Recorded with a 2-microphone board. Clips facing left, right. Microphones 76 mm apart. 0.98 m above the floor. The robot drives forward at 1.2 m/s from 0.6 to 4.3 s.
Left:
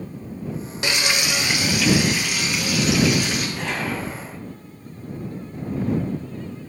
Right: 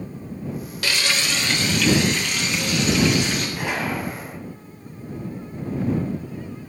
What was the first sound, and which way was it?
Frying, 25° left (ahead or behind).